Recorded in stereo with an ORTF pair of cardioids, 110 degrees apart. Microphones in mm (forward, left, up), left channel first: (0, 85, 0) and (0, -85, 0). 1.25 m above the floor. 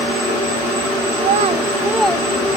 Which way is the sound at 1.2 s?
50° right.